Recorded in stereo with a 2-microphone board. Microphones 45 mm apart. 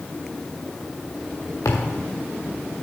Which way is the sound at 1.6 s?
80° left.